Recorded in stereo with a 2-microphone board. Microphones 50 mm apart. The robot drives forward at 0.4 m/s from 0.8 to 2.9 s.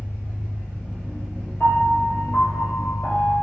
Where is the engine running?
60° left (ahead or behind), 1.6 m; by 3.4 s 40° left (ahead or behind), 2 m.